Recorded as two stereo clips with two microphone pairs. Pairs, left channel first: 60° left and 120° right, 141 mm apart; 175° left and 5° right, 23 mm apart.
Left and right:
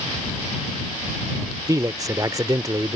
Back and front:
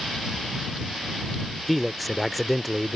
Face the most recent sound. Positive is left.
turn(degrees=-100)